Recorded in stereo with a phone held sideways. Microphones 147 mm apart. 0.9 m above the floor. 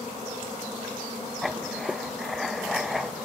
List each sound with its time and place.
1.4 s writing: centre (ahead or behind), 0.7 m